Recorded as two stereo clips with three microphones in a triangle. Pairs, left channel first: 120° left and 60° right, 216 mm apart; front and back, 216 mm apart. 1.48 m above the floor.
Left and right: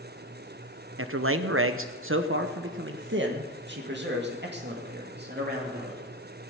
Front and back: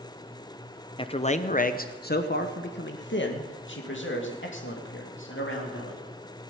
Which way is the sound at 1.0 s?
70° right.